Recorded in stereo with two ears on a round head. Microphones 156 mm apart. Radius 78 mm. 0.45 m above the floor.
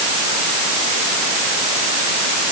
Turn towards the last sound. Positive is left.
No sound to turn to.